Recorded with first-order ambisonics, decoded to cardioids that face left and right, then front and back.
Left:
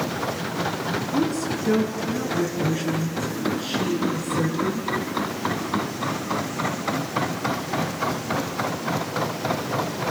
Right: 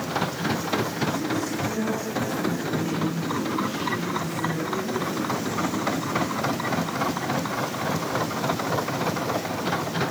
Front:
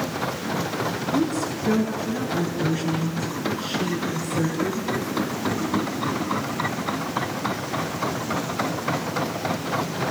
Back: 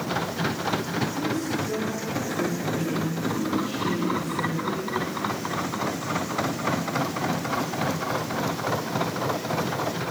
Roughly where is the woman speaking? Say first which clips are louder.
Left 2 dB, front 3 dB; ahead left.